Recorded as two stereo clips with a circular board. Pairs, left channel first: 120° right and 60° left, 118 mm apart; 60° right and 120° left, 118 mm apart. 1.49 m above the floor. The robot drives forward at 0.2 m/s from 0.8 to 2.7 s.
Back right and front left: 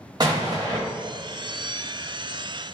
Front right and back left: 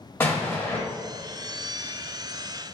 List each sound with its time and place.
0.2 s an explosion: 10° left, 0.8 m